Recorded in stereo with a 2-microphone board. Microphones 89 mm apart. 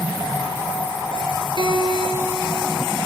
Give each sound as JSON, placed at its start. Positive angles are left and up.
{"t": 1.6, "sound": "a guitar", "side_deg": -60, "distance_m": 2.0}